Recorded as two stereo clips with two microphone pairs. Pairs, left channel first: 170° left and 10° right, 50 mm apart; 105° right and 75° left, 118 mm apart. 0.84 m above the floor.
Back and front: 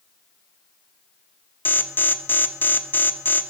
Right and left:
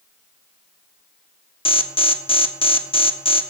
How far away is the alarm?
About 0.9 m.